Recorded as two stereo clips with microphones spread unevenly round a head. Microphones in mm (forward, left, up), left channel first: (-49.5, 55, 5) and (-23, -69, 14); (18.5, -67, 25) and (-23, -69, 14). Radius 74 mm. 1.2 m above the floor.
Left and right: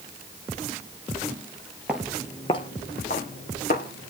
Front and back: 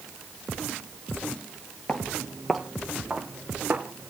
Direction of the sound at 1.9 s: 10° right.